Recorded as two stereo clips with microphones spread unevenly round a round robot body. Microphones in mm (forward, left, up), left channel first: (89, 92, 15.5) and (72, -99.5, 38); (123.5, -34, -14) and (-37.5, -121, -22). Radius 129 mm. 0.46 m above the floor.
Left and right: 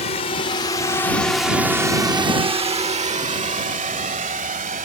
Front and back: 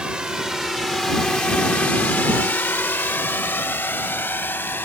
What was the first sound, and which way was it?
A drone, 125° left.